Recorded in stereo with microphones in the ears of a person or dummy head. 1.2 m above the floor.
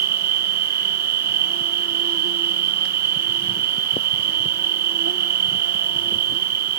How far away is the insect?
About 1.1 m.